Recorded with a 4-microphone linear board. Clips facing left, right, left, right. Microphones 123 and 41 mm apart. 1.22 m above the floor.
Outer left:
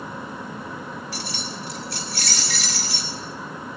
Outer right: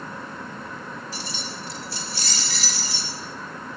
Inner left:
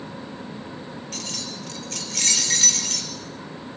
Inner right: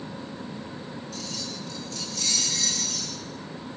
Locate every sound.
1.1 s keys jangling: 65° left (ahead or behind), 3 m